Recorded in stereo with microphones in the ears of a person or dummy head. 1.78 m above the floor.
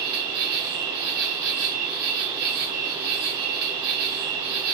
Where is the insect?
50° right (ahead or behind), 1.1 m.